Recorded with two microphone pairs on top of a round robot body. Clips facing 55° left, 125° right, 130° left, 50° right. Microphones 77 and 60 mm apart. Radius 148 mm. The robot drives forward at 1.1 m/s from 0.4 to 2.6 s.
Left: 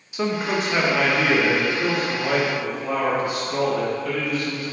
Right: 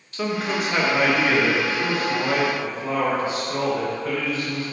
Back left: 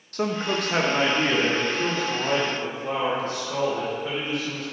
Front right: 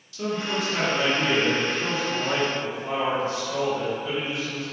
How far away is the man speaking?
About 0.7 m.